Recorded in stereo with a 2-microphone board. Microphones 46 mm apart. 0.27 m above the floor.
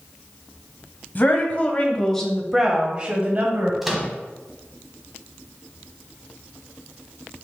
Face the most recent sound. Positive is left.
turn(degrees=-5)  # may be behind; listen again after turning